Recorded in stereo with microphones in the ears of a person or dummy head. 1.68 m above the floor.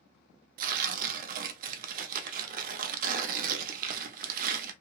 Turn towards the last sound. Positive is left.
turn(degrees=-50)  # may be behind; listen again after turning